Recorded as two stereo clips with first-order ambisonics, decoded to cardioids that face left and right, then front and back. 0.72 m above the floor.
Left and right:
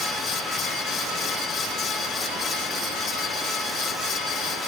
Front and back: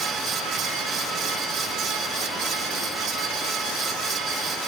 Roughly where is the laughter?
I don't hear laughter.